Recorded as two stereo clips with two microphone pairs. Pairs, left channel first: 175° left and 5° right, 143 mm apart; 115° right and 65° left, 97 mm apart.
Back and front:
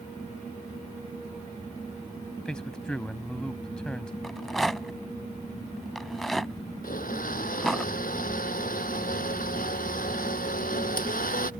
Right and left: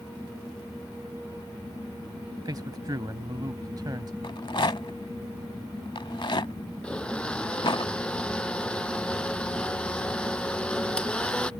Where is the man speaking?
90° left.